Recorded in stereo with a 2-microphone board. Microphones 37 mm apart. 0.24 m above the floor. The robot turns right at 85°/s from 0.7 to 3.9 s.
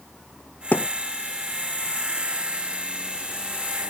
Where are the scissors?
I don't hear scissors.